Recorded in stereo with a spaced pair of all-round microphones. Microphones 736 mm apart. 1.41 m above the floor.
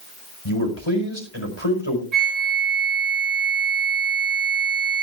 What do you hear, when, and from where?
0.5 s a man speaking: 40° left (ahead or behind), 5 m
2.1 s a flute: 60° right (ahead or behind), 5.5 m